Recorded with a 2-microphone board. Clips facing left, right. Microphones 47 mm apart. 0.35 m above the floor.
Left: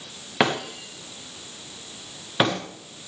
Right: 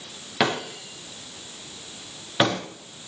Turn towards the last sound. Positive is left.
turn(degrees=20)  # may be behind; listen again after turning